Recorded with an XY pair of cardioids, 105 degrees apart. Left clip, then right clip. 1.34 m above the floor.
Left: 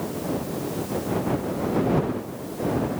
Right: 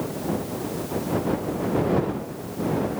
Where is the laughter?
I don't hear laughter.